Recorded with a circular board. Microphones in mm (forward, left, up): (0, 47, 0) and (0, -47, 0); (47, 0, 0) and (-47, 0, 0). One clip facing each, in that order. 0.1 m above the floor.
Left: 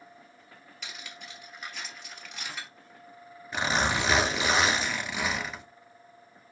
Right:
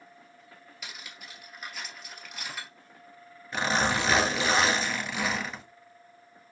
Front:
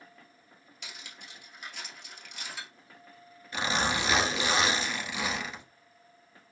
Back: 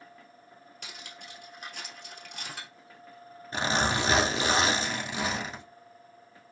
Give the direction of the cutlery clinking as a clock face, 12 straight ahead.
6 o'clock.